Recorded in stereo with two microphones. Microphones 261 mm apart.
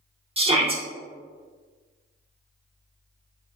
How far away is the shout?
About 0.7 m.